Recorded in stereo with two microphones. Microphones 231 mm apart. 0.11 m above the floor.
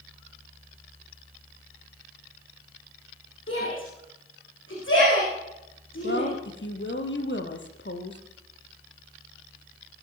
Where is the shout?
60° left (ahead or behind), 9.5 m.